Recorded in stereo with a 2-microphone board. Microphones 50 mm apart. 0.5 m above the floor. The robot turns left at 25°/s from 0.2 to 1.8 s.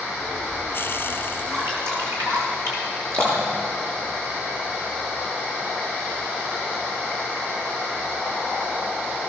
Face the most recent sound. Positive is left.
turn(degrees=-70)  # may be behind; listen again after turning